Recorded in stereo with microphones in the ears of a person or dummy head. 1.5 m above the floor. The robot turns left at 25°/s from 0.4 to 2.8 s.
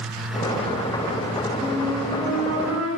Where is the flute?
20° left (ahead or behind), 3.5 m; by 2.9 s 10° right (ahead or behind), 3.5 m.